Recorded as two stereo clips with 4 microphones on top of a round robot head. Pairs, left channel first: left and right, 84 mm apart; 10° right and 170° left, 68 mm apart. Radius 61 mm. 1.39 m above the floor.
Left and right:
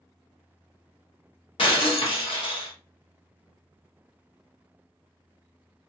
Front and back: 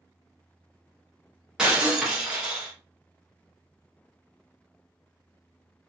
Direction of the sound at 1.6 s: 95° left.